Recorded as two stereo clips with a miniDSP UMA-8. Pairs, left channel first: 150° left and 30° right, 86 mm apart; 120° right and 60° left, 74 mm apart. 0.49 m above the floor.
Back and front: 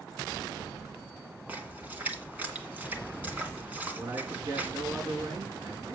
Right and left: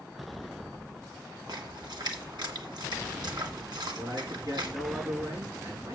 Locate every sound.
1.5 s a splash: 40° left, 2.5 m
4.0 s a man speaking: 20° left, 6.5 m